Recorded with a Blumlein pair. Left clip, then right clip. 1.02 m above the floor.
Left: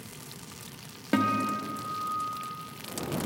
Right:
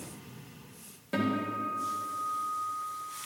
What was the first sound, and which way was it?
A guitar, 30° left.